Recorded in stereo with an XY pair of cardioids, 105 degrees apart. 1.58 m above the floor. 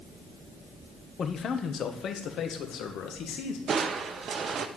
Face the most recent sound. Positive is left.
turn(degrees=-50)